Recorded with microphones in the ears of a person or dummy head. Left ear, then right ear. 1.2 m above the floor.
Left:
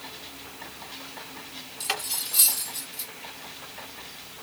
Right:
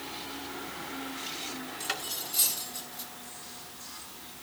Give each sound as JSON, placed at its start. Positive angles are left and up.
{"t": 1.8, "sound": "cutlery clinking", "side_deg": 10, "distance_m": 1.1}